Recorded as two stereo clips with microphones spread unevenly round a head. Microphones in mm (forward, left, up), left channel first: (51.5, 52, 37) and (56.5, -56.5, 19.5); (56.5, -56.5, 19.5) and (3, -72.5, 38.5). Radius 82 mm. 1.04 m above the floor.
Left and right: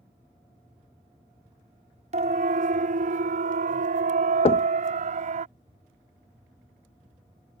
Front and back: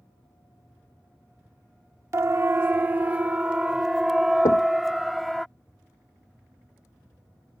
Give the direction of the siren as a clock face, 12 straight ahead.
4 o'clock.